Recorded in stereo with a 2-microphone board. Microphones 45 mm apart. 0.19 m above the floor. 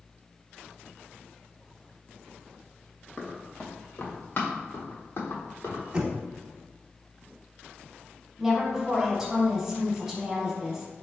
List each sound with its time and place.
3.2 s running footsteps: 25° left (ahead or behind), 1.3 m; by 5.8 s 70° left (ahead or behind), 2.5 m
5.9 s knocking: 20° right (ahead or behind), 0.8 m
8.4 s a woman speaking: 10° right (ahead or behind), 1.2 m